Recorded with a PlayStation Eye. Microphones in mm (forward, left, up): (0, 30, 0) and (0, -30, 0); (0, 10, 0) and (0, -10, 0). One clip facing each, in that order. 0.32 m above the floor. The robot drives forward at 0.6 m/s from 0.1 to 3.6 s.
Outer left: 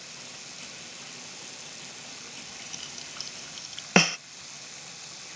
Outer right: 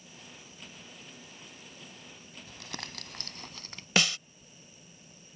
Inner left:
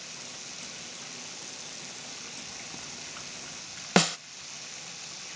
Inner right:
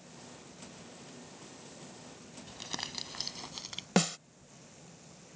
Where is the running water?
75° left (ahead or behind); by 5.4 s 85° left.